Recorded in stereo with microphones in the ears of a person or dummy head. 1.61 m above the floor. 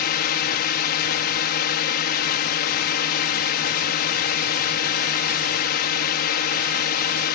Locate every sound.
0.0 s a drone: 55° left (ahead or behind)